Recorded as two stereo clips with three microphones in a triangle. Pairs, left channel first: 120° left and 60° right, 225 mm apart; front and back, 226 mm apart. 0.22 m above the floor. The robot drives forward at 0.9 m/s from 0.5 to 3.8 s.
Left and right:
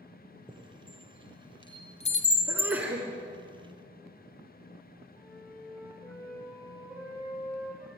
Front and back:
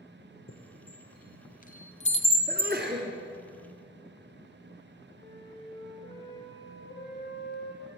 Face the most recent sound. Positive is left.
turn(degrees=40)